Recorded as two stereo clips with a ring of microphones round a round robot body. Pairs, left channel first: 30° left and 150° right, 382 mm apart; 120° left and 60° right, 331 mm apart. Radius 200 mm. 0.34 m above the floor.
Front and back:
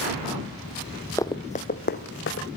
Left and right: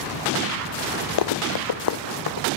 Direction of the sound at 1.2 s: 115° left.